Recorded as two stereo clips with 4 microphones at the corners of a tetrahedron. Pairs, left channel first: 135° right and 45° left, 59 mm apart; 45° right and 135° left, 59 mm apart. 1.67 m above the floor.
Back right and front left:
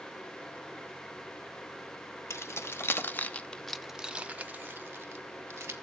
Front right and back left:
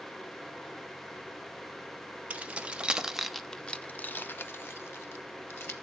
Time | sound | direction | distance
2.3 | keys jangling | 160° right | 1.0 m